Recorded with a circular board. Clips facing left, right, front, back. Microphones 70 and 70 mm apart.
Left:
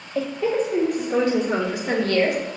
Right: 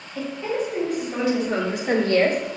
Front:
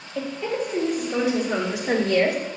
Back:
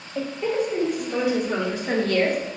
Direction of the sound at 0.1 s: 95° left.